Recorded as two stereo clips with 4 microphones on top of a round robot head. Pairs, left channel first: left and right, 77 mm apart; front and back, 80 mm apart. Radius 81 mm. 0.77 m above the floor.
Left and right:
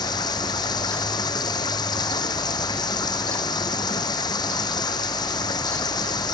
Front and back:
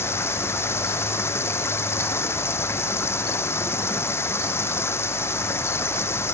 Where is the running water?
60° left.